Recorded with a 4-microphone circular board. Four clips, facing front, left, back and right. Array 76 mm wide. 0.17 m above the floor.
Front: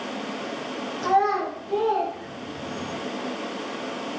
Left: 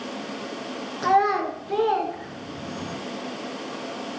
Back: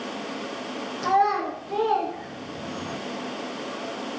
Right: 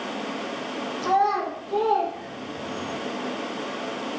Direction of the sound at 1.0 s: 90° left.